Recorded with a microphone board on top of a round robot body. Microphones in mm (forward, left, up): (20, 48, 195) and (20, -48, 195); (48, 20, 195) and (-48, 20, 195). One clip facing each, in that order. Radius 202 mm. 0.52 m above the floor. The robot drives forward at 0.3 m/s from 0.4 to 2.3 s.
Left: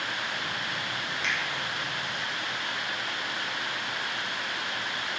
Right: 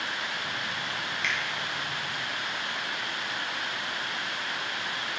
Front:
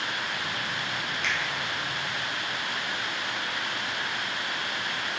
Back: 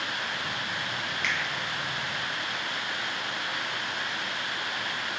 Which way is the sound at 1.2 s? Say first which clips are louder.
Even, front 1 dB; 50° left.